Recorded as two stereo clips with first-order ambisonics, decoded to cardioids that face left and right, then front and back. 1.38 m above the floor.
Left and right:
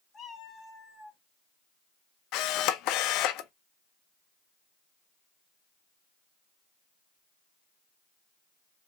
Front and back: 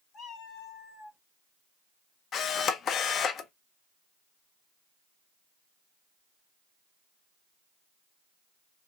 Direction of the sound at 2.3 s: 60° left.